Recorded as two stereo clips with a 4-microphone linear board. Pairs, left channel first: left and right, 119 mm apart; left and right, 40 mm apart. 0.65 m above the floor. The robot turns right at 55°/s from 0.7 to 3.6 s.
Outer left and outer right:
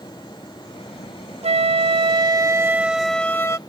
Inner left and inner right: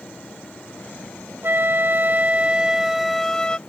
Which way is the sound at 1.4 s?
90° right.